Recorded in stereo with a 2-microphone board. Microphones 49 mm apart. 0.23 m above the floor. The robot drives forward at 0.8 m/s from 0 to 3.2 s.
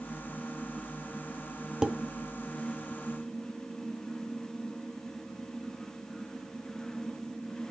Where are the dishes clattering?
15° right (ahead or behind), 0.7 m.